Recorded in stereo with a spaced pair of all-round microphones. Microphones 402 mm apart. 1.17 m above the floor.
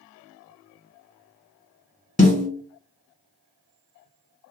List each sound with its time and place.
2.2 s a snare drum: 20° left (ahead or behind), 1.8 m